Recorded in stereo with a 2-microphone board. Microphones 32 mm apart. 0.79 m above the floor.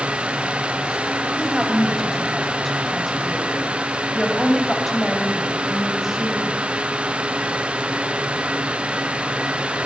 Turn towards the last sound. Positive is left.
turn(degrees=0)  # may be behind; listen again after turning